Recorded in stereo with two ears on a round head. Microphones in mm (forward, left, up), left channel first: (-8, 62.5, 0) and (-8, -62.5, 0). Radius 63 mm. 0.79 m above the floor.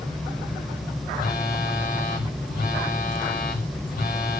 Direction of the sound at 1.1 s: 60° left (ahead or behind).